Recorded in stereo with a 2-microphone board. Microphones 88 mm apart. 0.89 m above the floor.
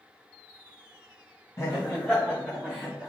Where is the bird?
I don't hear a bird.